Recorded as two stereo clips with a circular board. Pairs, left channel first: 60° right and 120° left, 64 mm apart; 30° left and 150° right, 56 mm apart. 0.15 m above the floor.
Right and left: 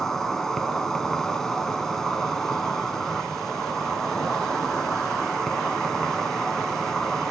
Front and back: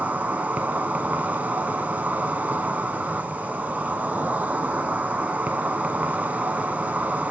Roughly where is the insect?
Behind right.